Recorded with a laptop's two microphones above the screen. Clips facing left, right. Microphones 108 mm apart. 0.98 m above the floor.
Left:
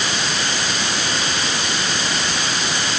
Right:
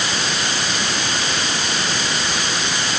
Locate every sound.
Only background noise.